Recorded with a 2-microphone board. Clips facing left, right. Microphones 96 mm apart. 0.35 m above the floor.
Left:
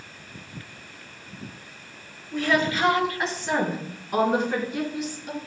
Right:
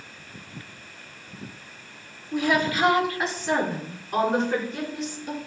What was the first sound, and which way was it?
A woman speaking, 20° right (ahead or behind).